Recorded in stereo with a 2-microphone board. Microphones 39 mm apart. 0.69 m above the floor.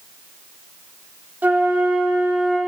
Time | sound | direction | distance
1.4 | a flute | 50° right (ahead or behind) | 2 m